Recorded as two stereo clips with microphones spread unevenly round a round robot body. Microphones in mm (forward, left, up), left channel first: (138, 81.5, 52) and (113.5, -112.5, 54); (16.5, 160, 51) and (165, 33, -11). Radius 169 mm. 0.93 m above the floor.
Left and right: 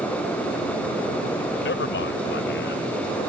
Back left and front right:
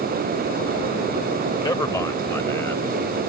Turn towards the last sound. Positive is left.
turn(degrees=65)